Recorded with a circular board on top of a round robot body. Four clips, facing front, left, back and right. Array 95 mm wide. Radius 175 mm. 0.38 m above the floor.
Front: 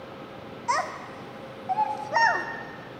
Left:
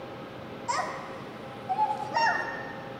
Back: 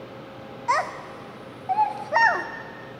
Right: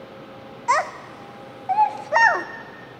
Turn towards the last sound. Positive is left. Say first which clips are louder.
# right 9 dB, back 3 dB
turn(degrees=-100)